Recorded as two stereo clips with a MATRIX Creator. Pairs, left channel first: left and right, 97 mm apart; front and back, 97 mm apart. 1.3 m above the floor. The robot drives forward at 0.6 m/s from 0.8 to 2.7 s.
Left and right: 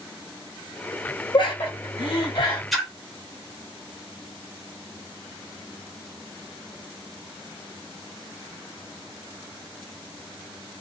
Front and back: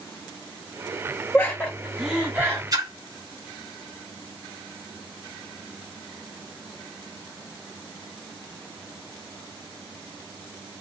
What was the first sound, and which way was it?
Laughter, 65° left.